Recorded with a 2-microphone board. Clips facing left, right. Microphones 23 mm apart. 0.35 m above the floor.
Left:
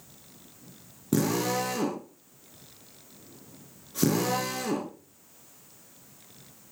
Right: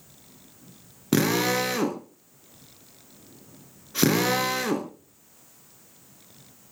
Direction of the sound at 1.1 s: 65° right (ahead or behind).